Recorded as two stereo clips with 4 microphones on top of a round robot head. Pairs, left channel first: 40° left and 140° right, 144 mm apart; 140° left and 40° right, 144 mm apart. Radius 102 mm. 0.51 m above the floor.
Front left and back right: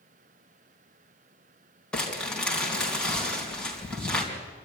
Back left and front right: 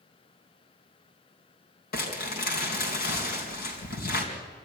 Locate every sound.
1.9 s crumpling: 125° left, 4 m